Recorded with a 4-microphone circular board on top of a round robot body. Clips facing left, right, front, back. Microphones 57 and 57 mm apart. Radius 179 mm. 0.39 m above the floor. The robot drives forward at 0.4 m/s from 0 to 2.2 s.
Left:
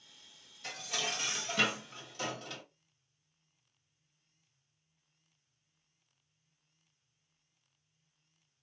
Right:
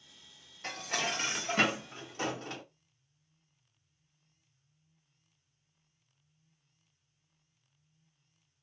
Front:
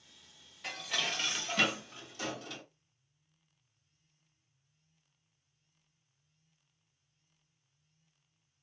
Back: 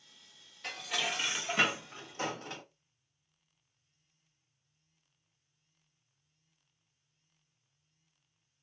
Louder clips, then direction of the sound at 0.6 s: Right 4 dB, back 1 dB; 85° right.